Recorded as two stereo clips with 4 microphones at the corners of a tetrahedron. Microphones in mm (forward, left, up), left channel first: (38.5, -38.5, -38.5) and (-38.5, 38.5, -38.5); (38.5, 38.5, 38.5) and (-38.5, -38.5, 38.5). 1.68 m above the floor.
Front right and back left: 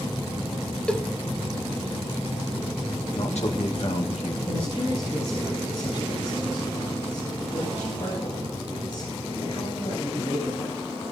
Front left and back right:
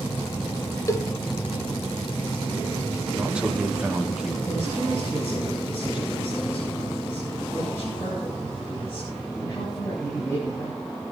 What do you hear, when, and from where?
0.9 s a cowbell: 30° left, 0.8 m
3.1 s a man speaking: 55° right, 2 m
4.5 s a man speaking: 20° right, 8.5 m